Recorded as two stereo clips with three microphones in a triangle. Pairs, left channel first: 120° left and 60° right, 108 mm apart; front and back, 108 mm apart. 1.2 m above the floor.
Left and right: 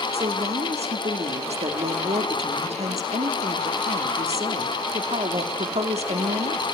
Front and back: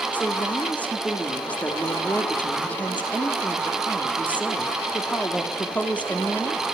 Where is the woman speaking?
75° right, 2 m.